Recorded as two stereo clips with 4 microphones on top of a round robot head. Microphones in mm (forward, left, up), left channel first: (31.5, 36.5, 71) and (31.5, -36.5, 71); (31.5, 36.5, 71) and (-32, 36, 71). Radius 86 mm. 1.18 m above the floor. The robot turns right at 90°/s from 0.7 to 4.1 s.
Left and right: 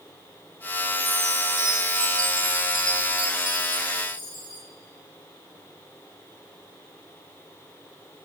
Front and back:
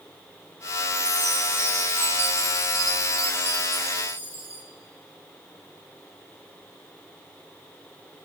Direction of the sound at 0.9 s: 170° right.